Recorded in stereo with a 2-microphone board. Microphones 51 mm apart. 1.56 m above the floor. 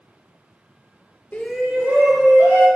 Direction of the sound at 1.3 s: 30° left (ahead or behind).